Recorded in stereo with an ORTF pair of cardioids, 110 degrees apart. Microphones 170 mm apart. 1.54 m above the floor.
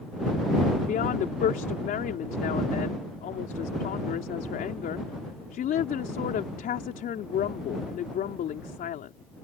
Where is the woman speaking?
60° left.